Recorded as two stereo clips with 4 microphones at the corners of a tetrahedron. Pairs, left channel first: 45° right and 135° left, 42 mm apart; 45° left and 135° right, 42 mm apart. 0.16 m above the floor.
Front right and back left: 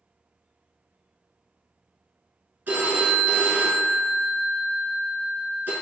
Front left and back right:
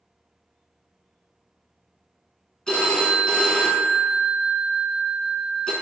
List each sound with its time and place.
2.7 s a phone ringing: 115° left, 1.0 m